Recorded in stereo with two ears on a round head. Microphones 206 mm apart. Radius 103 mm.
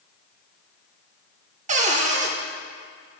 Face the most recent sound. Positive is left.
turn(degrees=-30)  # may be behind; listen again after turning